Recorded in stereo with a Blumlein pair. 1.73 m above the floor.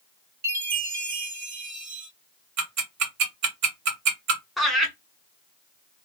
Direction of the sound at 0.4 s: 50° right.